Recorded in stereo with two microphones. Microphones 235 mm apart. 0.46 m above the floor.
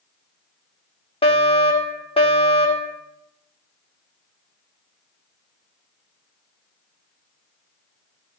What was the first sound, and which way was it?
A fire alarm, 25° left (ahead or behind).